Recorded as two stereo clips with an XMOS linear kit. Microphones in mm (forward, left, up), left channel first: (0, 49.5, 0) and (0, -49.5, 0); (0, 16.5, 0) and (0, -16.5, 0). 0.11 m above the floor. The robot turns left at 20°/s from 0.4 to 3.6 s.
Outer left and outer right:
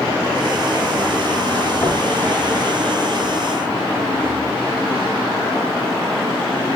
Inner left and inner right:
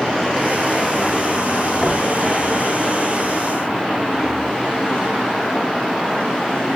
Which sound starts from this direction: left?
Knocking, at 1.8 s.